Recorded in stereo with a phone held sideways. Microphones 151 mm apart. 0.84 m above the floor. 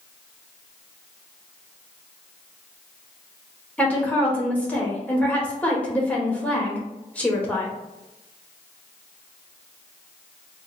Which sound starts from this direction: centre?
A woman speaking, at 3.8 s.